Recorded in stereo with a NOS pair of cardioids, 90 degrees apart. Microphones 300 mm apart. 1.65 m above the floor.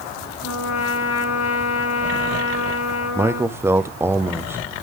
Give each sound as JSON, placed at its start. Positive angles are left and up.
{"t": 0.4, "sound": "a trumpet", "azimuth_deg": 60, "distance_m": 3.5}
{"t": 3.1, "sound": "a man speaking", "azimuth_deg": -10, "distance_m": 0.7}